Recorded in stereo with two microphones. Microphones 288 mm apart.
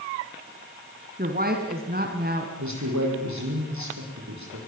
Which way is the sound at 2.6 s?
75° right (ahead or behind).